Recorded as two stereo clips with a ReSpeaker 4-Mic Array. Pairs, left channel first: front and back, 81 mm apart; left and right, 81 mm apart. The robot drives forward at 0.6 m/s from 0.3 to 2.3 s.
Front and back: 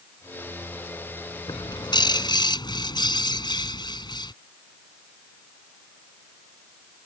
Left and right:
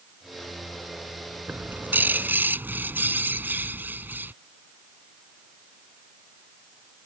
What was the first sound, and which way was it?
A bird, 20° right.